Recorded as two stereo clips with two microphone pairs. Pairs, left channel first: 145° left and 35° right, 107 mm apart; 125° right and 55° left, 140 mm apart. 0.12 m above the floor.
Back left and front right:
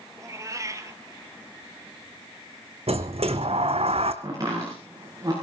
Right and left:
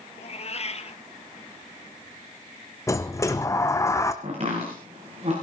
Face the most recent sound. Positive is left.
turn(degrees=20)